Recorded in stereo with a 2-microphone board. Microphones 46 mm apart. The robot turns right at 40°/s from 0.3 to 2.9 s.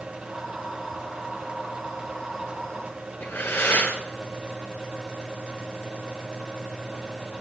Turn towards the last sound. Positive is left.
turn(degrees=55)  # may be behind; listen again after turning